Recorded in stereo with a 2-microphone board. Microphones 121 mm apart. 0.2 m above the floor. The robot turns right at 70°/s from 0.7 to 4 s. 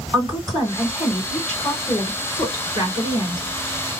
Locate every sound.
0.1 s a woman speaking: 35° right (ahead or behind), 2.5 m; by 3.9 s centre (ahead or behind), 2.5 m